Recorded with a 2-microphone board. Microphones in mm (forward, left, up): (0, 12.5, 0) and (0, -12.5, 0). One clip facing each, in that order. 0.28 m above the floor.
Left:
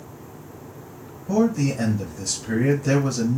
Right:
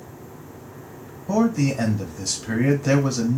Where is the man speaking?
20° right (ahead or behind), 1.2 m.